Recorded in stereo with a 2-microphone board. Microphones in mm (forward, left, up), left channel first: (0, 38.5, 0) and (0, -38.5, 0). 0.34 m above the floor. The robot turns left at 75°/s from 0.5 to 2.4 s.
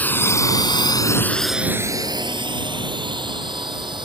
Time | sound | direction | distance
0.0 | a drone | 20° left (ahead or behind) | ?